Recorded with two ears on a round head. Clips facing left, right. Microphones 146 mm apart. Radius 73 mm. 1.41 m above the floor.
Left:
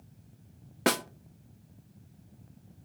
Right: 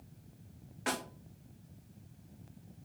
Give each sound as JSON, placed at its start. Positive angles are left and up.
{"t": 0.9, "sound": "a snare drum", "side_deg": 70, "distance_m": 0.7}